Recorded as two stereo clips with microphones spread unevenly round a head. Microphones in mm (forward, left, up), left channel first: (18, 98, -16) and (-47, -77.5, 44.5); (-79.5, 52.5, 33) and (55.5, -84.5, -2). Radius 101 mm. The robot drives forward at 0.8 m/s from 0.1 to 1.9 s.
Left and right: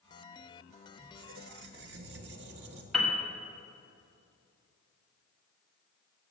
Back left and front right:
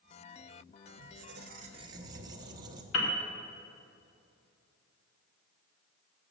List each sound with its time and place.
1.0 s a squeak: 60° right, 0.8 m; by 2.8 s 120° right, 0.8 m
2.9 s a piano: 160° left, 1.7 m